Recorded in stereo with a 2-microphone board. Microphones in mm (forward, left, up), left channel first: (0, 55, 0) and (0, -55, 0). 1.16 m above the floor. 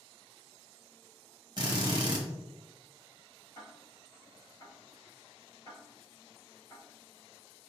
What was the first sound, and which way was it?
A drill, 40° right (ahead or behind).